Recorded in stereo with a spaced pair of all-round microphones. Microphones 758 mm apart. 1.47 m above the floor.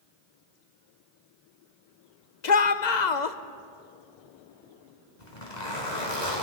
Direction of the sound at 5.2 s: 65° left (ahead or behind).